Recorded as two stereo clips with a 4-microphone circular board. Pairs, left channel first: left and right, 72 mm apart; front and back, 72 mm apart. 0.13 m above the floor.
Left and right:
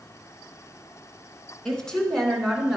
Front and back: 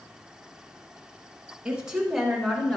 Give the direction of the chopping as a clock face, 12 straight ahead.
I don't hear chopping.